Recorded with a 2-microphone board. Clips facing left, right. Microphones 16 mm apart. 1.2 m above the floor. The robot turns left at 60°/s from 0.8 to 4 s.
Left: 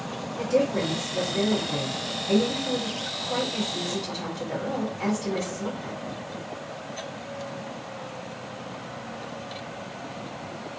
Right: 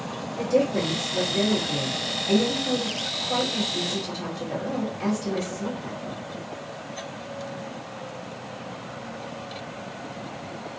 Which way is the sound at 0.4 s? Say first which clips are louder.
Right 1 dB; centre (ahead or behind).